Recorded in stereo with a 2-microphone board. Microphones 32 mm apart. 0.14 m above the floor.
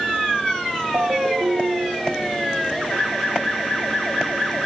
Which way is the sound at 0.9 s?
65° right (ahead or behind).